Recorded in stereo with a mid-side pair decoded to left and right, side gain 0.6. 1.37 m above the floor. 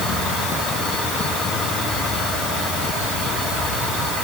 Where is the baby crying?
I don't hear a baby crying.